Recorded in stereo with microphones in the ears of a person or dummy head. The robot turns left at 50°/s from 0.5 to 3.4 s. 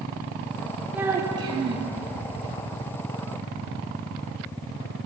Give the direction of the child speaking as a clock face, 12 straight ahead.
12 o'clock.